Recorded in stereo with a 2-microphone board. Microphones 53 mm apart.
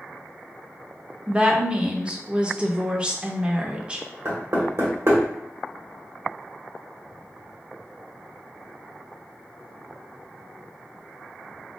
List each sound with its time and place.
1.3 s a woman speaking: 20° right (ahead or behind), 0.8 m
4.2 s knocking: 55° right (ahead or behind), 1.7 m